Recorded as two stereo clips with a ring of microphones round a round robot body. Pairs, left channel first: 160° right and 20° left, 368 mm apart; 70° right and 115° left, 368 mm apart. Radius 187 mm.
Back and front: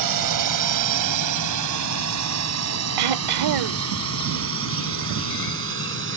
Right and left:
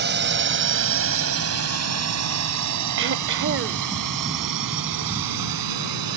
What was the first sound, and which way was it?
A drone, 50° left.